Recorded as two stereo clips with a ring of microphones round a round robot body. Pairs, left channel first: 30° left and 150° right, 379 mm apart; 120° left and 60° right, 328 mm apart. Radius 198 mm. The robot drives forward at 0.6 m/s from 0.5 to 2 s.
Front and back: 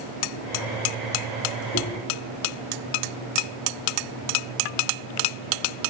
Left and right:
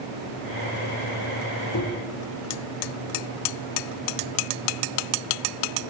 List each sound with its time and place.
1.7 s knocking: 90° left, 3 m